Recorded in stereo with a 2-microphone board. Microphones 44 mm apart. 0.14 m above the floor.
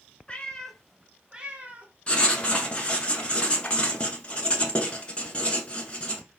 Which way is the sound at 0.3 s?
25° left (ahead or behind).